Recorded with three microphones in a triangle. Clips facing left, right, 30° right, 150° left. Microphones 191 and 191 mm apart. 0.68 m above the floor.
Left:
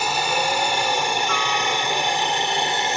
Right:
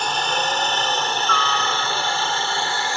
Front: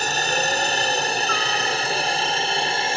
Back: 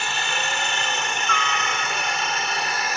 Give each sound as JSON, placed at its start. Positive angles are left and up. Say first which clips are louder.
{"t": 0.0, "sound": "a helicopter", "louder": "left 1 dB, front 6 dB", "azimuth_deg": 10}